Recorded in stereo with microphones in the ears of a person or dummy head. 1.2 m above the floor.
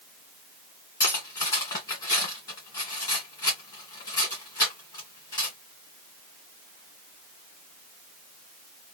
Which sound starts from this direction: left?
Cutlery clinking, at 1.0 s.